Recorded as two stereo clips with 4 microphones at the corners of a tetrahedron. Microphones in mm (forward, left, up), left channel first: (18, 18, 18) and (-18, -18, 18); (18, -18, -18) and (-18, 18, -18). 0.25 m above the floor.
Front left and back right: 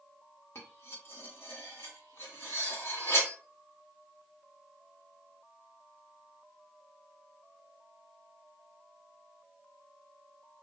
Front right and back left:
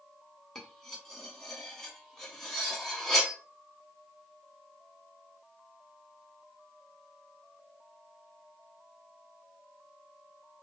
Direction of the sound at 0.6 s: 35° left.